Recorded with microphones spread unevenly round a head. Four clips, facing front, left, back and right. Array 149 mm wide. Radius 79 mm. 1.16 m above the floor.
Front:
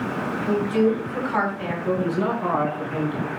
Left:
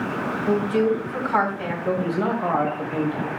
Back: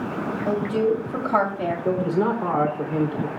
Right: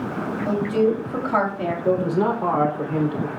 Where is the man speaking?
140° right, 3 m.